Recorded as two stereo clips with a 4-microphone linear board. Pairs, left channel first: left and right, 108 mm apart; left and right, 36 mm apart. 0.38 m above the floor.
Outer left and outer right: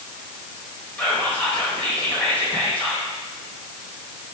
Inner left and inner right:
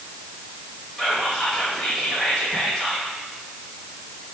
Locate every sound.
1.0 s whispering: 15° left (ahead or behind), 1.5 m